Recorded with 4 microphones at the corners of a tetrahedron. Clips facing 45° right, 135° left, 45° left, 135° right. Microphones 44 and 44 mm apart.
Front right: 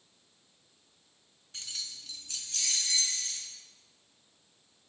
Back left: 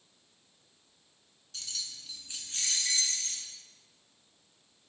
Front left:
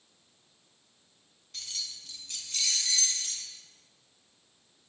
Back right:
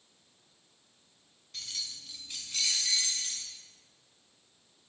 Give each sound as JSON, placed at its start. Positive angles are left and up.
{"t": 1.5, "sound": "keys jangling", "azimuth_deg": -55, "distance_m": 0.9}